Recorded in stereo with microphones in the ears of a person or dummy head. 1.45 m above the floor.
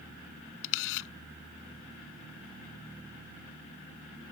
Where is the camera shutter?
70° left (ahead or behind).